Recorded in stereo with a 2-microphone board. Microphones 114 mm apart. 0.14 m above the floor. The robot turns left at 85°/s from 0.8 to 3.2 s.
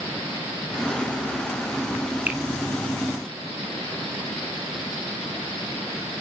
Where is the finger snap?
15° right (ahead or behind), 0.9 m; by 2.4 s 10° right (ahead or behind), 0.9 m.